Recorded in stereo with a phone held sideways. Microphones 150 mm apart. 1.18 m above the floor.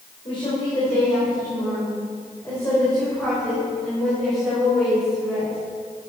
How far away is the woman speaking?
About 3.5 m.